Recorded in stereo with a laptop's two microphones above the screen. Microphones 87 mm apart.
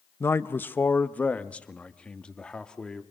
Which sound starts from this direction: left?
A man speaking, at 0.2 s.